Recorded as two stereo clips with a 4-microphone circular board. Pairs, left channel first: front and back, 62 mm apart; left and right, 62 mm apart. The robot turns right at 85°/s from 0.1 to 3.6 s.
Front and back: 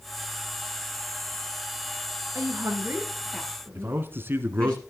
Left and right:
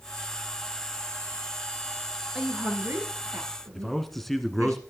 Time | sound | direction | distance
2.4 | a woman speaking | 175° right | 2.5 m
3.8 | a man speaking | 175° left | 1.4 m